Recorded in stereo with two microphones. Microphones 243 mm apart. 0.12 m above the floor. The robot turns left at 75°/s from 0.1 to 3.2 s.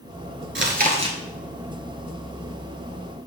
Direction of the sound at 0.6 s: 115° right.